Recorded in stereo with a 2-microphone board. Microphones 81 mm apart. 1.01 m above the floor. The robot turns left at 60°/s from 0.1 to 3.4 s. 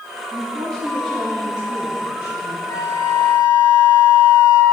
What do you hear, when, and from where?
0.3 s a woman speaking: 30° right, 1.5 m; by 2.6 s 165° right, 1.5 m
2.7 s a flute: 125° left, 1.2 m; by 4.6 s 85° left, 1.2 m